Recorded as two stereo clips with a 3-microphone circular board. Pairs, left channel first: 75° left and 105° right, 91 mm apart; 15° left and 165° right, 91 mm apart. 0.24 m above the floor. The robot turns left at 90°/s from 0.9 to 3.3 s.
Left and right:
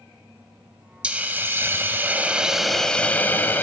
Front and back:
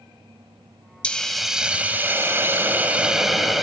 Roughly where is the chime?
I don't hear a chime.